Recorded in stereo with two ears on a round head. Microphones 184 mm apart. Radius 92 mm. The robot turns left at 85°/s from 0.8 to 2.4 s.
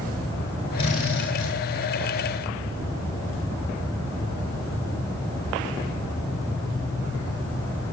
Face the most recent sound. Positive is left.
turn(degrees=20)